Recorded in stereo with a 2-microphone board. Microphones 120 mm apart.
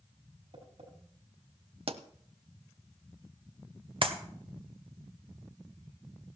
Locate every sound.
0.5 s tapping: 60° right (ahead or behind), 5.5 m
1.9 s a pop: 55° right (ahead or behind), 0.7 m
4.0 s a clap: 45° right (ahead or behind), 1.0 m